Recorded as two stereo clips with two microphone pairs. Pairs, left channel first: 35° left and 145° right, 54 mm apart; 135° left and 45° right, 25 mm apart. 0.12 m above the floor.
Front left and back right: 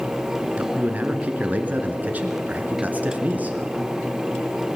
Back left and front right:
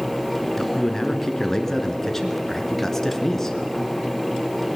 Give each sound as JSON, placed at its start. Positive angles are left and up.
{"t": 0.6, "sound": "a man speaking", "azimuth_deg": -165, "distance_m": 1.4}